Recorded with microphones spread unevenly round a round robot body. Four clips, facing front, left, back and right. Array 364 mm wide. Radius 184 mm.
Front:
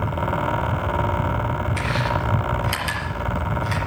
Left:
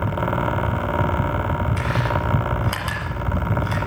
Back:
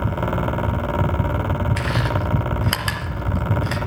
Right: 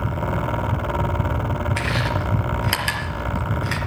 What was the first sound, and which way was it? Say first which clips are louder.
Chewing: left 1 dB, even; 155° right.